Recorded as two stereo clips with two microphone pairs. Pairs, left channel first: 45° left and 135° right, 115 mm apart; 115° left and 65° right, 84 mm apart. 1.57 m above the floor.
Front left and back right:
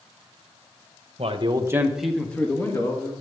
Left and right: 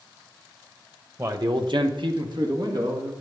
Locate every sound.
1.2 s a man speaking: 115° right, 1.2 m; by 3.1 s 20° right, 2.5 m